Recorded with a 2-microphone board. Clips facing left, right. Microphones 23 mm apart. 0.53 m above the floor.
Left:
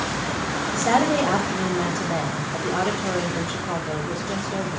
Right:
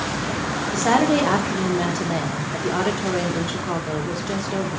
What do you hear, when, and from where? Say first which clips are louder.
0.7 s a woman speaking: right 2 dB; 40° right (ahead or behind), 1.0 m